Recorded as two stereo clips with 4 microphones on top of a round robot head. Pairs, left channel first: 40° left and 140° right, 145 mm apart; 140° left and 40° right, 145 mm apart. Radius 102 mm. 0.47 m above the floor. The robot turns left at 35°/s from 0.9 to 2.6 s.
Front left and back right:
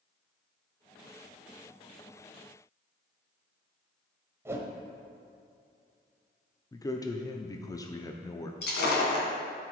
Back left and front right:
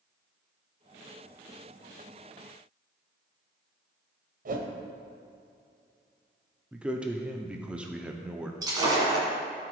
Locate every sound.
4.5 s a whoosh: 65° right, 1.0 m
6.7 s a man speaking: 35° left, 0.7 m
8.6 s breaking glass: 25° left, 1.9 m